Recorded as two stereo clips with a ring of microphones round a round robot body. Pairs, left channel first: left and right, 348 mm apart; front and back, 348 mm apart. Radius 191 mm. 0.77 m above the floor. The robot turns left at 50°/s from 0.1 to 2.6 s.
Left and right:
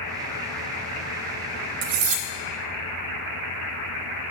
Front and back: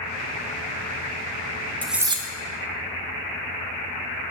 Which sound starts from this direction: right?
Cutlery clinking, at 1.8 s.